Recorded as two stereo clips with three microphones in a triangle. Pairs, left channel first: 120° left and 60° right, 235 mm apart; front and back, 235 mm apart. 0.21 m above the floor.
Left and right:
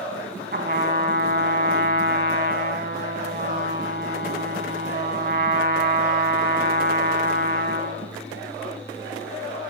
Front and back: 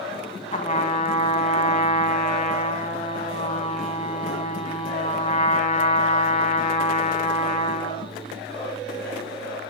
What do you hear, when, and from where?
0.5 s a trumpet: 45° right, 0.8 m